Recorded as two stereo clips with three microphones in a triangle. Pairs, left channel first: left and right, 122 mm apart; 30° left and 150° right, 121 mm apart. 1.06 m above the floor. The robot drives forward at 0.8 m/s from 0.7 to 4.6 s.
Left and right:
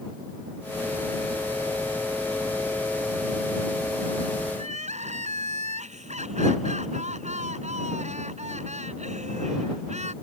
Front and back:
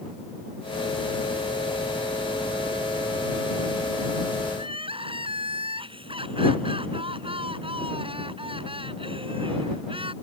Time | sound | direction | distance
4.5 | crying | 105° right | ?